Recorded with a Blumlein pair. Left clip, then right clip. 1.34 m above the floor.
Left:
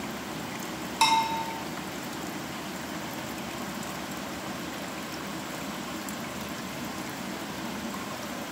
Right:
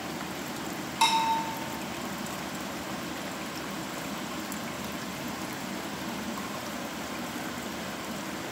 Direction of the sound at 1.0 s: 15° left.